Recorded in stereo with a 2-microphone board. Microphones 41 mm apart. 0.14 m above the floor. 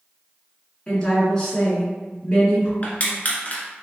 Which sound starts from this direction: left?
Crushing, at 2.8 s.